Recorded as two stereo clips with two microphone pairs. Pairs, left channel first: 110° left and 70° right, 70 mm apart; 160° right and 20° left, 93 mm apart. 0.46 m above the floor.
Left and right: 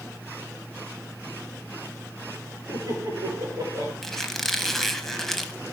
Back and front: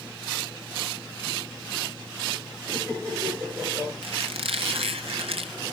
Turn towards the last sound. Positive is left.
turn(degrees=25)